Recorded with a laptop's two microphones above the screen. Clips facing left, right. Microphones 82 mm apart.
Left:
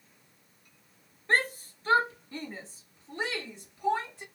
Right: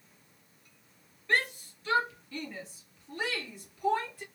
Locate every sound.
1.3 s a shout: 35° left (ahead or behind), 0.7 m; by 4.2 s 25° left (ahead or behind), 1.9 m